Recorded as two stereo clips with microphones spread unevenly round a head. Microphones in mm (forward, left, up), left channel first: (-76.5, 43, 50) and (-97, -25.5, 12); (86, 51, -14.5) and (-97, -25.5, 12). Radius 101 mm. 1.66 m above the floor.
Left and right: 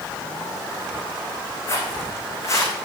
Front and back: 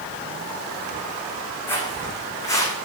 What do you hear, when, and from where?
1.7 s footsteps: 105° left, 4.5 m; by 2.7 s 100° left, 5 m